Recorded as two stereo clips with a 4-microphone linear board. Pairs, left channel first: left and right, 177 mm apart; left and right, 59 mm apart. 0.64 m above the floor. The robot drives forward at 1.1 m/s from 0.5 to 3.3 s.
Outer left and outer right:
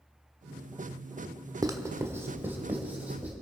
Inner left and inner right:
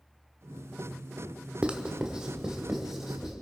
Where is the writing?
20° right (ahead or behind), 1.1 m; by 3.3 s 10° right (ahead or behind), 3 m.